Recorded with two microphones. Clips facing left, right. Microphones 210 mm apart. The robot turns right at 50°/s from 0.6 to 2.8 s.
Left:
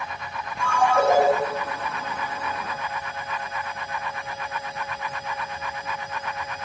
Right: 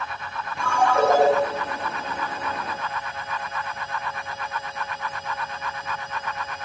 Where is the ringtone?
80° right, 4 m; by 1.3 s 45° right, 4 m.